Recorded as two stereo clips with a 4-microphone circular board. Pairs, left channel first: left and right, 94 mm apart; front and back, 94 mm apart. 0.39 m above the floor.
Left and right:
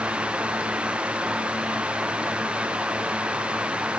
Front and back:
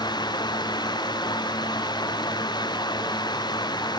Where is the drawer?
I don't hear a drawer.